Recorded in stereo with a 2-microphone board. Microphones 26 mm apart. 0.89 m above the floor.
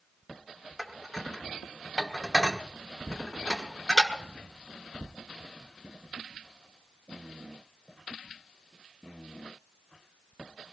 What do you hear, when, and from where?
0.8 s dishes clattering: 5° right (ahead or behind), 1.2 m